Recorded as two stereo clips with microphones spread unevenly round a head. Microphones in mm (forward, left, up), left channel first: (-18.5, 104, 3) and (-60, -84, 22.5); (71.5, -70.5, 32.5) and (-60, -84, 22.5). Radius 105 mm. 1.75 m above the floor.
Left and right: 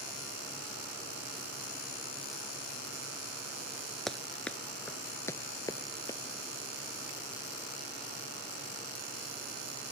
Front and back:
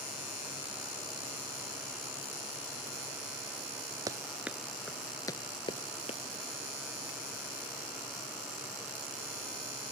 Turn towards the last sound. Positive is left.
turn(degrees=0)